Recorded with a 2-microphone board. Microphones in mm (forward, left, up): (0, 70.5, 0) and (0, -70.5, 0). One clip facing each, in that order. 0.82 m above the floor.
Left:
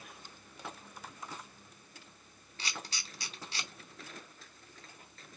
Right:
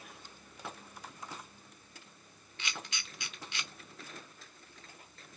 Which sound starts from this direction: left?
A camera shutter, at 2.6 s.